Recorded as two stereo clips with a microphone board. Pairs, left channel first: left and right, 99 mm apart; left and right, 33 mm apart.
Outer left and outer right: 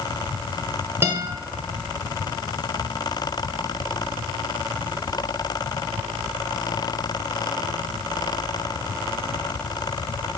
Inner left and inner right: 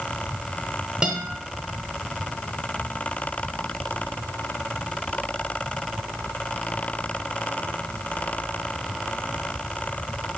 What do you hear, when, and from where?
1.0 s a guitar: 25° right (ahead or behind), 0.9 m